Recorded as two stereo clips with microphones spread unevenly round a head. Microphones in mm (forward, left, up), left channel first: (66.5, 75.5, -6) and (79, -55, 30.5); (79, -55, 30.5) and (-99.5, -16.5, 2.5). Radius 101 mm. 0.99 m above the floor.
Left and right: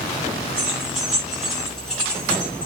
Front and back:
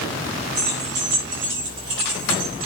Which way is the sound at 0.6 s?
160° right.